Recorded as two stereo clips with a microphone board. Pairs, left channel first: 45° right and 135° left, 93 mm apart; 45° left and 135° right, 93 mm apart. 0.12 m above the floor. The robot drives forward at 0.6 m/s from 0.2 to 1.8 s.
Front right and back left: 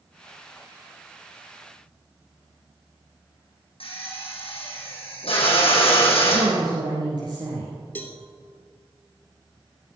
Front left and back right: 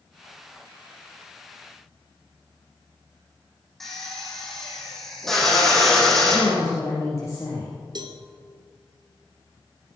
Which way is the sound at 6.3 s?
100° left.